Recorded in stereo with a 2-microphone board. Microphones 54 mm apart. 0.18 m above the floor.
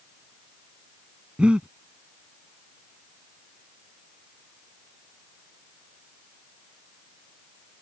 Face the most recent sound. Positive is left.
turn(degrees=-20)  # may be behind; listen again after turning